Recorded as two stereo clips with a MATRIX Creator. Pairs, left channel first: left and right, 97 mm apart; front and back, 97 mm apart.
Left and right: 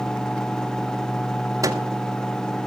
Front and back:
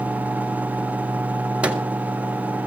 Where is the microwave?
110° right, 1.7 m.